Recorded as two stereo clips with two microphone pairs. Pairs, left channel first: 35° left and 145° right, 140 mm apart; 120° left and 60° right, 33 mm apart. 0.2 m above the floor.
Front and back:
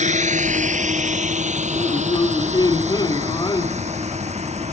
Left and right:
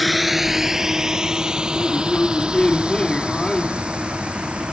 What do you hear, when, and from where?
0.0 s a drone: 145° right; by 4.7 s 110° right
1.7 s a man speaking: 65° left